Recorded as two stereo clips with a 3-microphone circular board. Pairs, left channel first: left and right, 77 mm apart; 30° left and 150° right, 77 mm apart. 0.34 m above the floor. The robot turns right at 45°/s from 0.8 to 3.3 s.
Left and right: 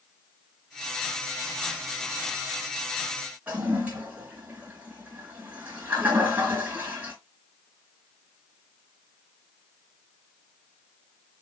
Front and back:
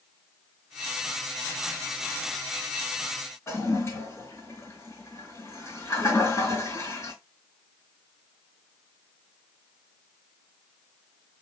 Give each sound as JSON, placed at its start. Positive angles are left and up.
{"t": 3.5, "sound": "a toilet flushing", "azimuth_deg": -20, "distance_m": 3.0}